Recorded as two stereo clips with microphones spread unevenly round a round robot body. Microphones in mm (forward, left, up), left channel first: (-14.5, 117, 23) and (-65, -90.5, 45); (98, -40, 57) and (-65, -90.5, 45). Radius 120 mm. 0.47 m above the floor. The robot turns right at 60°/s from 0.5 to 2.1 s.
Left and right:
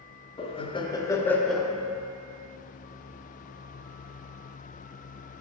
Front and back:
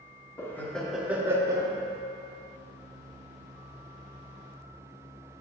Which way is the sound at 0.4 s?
90° left.